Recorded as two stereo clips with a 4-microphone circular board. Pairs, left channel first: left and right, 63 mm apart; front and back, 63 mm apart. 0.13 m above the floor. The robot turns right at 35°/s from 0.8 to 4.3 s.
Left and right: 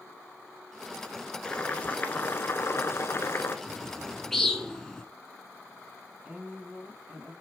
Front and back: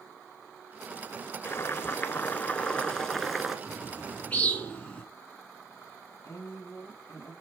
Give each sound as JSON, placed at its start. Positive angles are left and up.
{"t": 1.4, "sound": "boiling", "azimuth_deg": 25, "distance_m": 0.8}
{"t": 3.7, "sound": "a bird", "azimuth_deg": 0, "distance_m": 1.0}
{"t": 6.2, "sound": "a woman speaking", "azimuth_deg": -30, "distance_m": 3.5}